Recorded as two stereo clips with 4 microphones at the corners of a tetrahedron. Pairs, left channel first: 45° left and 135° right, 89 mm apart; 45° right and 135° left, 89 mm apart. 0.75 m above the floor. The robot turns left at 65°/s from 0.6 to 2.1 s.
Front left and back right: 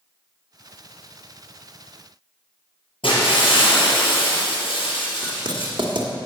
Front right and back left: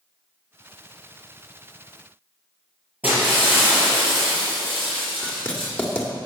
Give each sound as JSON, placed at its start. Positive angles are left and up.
{"t": 3.0, "sound": "breaking glass", "azimuth_deg": 60, "distance_m": 5.5}
{"t": 5.2, "sound": "writing", "azimuth_deg": -120, "distance_m": 1.6}